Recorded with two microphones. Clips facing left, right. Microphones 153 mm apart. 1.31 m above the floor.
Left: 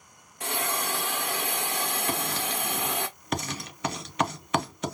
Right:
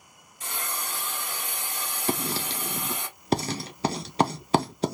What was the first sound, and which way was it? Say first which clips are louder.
A hiss: left 6 dB; 65° left (ahead or behind).